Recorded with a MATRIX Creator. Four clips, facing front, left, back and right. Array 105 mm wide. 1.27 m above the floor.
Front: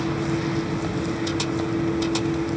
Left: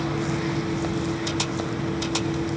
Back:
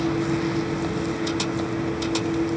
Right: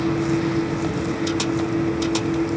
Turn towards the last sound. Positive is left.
No sound to turn to.